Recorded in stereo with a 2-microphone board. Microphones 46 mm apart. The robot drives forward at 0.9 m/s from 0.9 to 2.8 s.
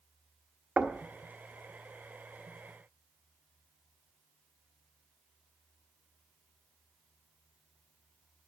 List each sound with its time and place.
0.8 s knocking: 25° right (ahead or behind), 0.9 m; by 1.0 s 30° right (ahead or behind), 0.9 m